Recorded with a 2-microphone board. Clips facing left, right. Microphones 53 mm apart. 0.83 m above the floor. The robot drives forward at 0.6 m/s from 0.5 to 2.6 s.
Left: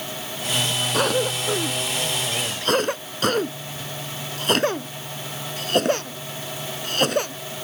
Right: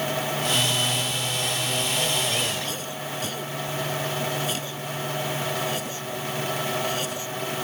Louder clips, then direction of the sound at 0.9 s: Left 7 dB; 70° left (ahead or behind).